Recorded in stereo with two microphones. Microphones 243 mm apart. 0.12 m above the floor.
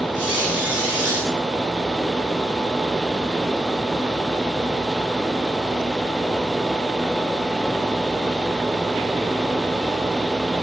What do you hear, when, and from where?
0.1 s a squeak: 60° right (ahead or behind), 7.5 m